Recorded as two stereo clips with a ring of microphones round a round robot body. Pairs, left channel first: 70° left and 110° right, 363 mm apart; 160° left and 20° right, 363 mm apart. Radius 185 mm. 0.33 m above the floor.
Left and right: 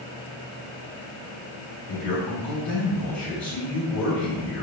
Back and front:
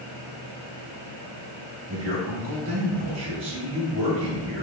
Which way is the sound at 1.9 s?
25° left.